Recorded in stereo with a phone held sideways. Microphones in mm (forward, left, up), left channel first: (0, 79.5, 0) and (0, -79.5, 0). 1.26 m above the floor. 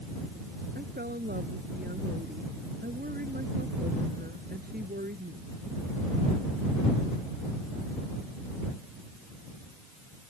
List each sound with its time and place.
0.8 s a woman speaking: 70° right (ahead or behind)